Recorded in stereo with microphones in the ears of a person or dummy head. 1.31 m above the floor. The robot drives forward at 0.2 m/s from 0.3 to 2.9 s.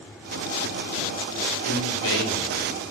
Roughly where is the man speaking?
Left.